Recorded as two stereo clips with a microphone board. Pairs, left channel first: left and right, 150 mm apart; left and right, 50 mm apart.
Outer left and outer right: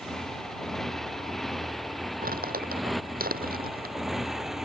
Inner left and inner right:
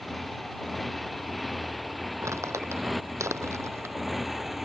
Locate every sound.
0.0 s a motorcycle: 5° left (ahead or behind); by 4.6 s centre (ahead or behind)
2.2 s crumpling: 80° right